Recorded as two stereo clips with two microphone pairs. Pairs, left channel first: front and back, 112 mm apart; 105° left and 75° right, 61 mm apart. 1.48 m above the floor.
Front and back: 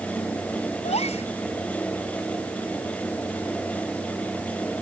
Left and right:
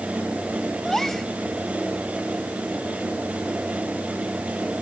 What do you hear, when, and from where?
0.8 s a gasp: 20° left